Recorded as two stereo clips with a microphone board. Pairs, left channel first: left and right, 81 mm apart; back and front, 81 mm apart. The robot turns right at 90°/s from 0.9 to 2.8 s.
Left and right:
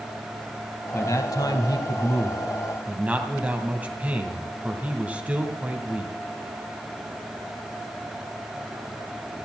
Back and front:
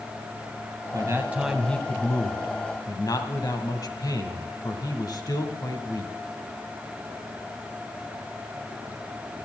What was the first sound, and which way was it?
A man speaking, 35° left.